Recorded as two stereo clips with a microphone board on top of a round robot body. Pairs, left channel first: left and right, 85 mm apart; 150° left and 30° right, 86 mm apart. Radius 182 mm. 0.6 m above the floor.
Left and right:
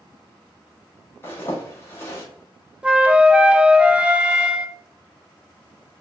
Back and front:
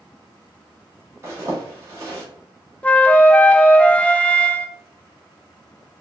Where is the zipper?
25° left, 1.2 m.